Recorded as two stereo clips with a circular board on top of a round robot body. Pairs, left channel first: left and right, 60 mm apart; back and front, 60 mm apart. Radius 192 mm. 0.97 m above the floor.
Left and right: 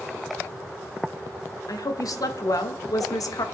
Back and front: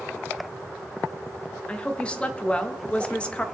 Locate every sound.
1.7 s a woman speaking: 110° left, 1.2 m